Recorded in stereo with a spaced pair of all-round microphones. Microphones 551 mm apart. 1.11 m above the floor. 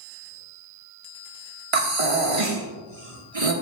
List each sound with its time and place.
1.7 s breathing: 70° right (ahead or behind), 1.4 m